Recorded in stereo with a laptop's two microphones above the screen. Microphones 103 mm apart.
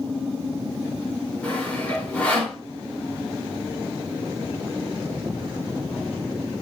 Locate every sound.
1.4 s sawing: 10° left (ahead or behind), 4 m